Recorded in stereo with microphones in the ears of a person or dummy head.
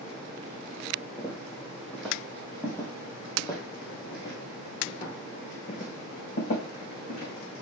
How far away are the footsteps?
About 2.5 m.